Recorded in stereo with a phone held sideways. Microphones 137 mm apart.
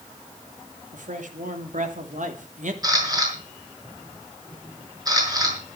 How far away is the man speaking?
About 3 m.